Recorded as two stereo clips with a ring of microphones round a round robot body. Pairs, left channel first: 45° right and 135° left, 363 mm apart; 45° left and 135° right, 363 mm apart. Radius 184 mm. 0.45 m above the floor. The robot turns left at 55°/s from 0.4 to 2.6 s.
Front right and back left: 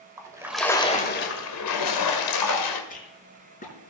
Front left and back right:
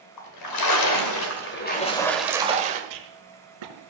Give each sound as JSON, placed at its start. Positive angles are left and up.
{"t": 0.2, "sound": "a splash", "azimuth_deg": 55, "distance_m": 2.5}
{"t": 2.9, "sound": "a rattle", "azimuth_deg": -115, "distance_m": 5.0}